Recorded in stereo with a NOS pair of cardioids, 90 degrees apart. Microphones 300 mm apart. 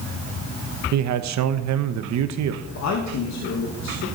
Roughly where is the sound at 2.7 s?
Ahead left.